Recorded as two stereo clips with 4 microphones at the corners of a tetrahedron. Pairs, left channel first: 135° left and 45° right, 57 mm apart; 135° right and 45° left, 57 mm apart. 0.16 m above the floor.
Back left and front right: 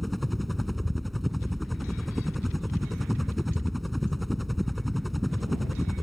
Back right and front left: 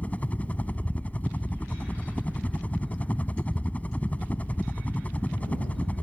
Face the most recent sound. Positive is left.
turn(degrees=-135)